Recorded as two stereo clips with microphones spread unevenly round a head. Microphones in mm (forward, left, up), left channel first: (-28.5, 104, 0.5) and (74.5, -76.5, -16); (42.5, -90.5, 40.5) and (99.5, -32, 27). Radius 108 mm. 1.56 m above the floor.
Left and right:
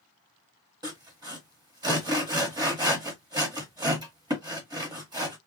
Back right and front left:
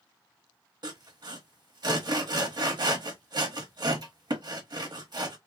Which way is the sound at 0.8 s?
10° left.